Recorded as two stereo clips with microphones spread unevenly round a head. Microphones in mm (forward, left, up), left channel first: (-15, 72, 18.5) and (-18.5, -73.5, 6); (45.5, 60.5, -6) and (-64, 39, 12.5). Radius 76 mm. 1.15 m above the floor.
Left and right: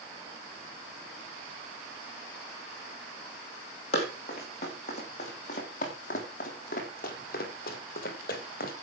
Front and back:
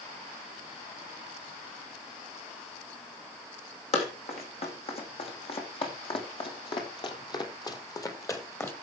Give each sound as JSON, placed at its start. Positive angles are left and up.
{"t": 3.9, "sound": "running footsteps", "azimuth_deg": 40, "distance_m": 4.5}